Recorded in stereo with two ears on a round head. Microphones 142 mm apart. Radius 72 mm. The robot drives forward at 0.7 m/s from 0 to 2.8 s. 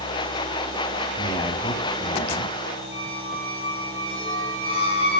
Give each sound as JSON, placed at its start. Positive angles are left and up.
{"t": 1.2, "sound": "a man speaking", "side_deg": 30, "distance_m": 4.0}
{"t": 2.9, "sound": "a squeak", "side_deg": 35, "distance_m": 3.5}